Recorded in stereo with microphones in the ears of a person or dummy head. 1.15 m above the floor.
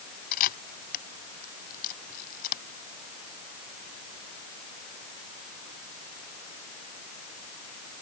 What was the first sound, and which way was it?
A camera shutter, 50° left (ahead or behind).